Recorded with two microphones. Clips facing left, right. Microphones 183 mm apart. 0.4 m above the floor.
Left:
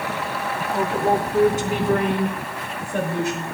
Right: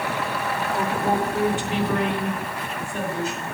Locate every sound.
0.6 s a woman speaking: 10° left (ahead or behind), 0.9 m; by 3.5 s 65° left (ahead or behind), 2.0 m